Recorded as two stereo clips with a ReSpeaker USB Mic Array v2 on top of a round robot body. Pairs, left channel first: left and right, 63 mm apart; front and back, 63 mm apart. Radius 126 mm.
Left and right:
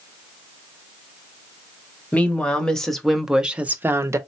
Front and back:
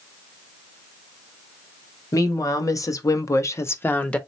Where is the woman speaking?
20° left, 1.4 m; by 4.2 s 65° right, 0.8 m.